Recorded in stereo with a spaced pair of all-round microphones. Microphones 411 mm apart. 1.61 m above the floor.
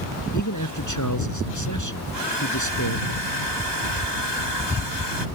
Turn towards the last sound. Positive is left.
turn(degrees=80)